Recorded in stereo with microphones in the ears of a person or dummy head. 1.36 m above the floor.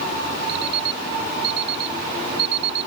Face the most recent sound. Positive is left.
turn(degrees=-60)  # may be behind; listen again after turning